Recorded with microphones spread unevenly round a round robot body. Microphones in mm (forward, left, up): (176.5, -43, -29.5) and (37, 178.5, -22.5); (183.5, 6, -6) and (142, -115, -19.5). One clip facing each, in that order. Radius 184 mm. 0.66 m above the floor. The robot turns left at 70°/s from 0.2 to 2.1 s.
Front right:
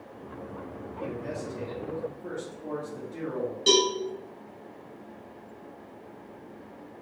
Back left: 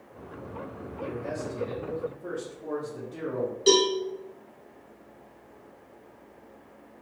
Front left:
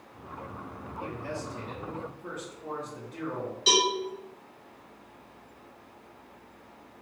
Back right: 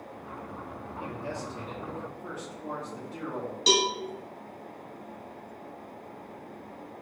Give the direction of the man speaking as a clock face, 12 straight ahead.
3 o'clock.